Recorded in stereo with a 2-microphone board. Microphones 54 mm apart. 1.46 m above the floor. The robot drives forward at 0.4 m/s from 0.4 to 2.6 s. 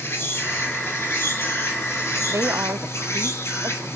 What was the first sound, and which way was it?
An insect, 50° left (ahead or behind).